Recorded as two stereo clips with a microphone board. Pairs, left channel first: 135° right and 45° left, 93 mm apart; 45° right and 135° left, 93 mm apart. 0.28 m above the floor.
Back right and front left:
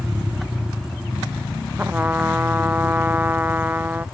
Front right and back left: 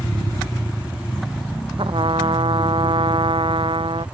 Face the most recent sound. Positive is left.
turn(degrees=115)